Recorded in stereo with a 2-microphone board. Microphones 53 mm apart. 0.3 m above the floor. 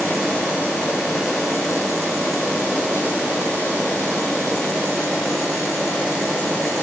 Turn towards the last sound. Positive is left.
No sound to turn to.